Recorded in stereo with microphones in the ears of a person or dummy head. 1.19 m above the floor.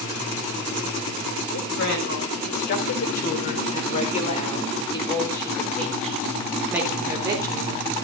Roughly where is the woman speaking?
Left.